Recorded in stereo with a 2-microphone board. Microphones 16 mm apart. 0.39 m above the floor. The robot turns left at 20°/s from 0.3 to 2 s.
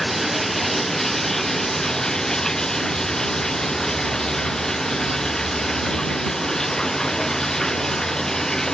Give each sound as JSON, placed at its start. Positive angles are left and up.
{"t": 0.0, "sound": "running water", "azimuth_deg": 180}